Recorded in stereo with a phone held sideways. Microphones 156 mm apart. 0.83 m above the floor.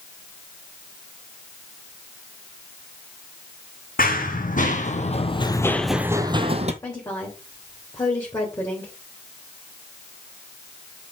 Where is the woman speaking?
20° left (ahead or behind), 3 m.